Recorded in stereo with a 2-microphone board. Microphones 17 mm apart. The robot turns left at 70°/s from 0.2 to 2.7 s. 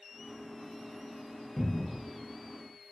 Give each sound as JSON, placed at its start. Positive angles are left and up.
{"t": 1.6, "sound": "a cupboard door", "side_deg": 5, "distance_m": 1.0}